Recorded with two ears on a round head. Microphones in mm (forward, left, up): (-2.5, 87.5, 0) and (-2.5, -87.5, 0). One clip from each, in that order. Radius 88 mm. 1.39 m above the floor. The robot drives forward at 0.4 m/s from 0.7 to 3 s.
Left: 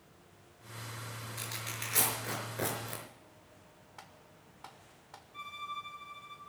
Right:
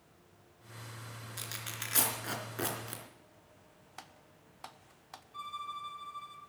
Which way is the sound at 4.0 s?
75° right (ahead or behind).